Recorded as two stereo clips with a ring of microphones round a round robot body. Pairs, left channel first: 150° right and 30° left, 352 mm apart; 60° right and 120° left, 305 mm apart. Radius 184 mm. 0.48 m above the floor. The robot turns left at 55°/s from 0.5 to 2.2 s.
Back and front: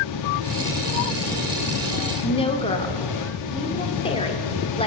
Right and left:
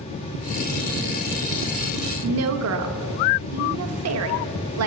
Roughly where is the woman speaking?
Behind left.